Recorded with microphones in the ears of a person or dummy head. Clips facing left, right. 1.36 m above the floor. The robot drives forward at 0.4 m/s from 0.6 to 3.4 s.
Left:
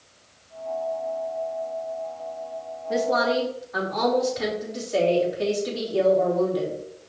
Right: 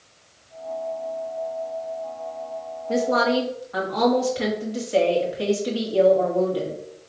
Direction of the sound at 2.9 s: 50° right (ahead or behind).